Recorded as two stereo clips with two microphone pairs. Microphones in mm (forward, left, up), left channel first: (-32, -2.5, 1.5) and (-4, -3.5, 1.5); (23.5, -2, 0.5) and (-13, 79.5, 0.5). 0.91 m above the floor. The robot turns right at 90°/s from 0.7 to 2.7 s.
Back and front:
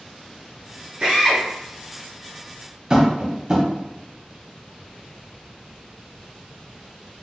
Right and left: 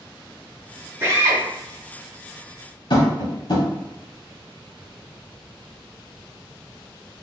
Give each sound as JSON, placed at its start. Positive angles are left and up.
{"t": 1.0, "sound": "a drill", "azimuth_deg": 50, "distance_m": 1.8}
{"t": 2.9, "sound": "tapping", "azimuth_deg": -65, "distance_m": 1.1}